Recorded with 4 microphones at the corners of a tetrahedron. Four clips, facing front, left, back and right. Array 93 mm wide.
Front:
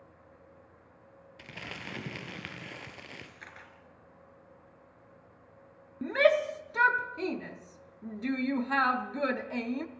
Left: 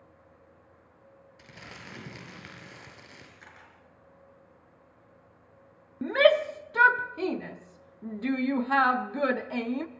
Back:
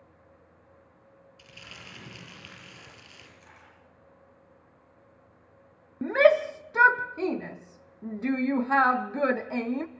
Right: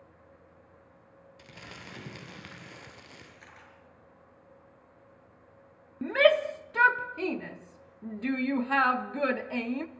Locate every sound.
1.4 s crumpling: straight ahead, 3.5 m
3.4 s a camera shutter: 10° left, 5 m
6.0 s a shout: 155° left, 0.7 m